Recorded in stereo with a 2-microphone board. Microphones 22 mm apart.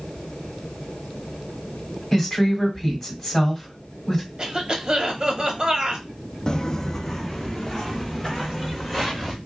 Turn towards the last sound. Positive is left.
turn(degrees=0)  # may be behind; listen again after turning